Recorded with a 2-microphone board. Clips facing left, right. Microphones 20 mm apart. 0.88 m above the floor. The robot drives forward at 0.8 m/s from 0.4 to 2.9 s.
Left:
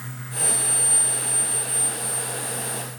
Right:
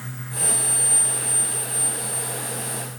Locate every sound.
Only background noise.